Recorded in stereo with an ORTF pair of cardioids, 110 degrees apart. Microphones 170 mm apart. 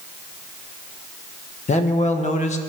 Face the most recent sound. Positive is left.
turn(degrees=40)